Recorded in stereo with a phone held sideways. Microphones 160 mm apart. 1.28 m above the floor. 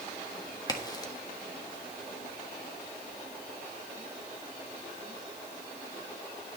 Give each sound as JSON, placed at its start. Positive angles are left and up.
{"t": 0.7, "sound": "a crack", "side_deg": 25, "distance_m": 1.4}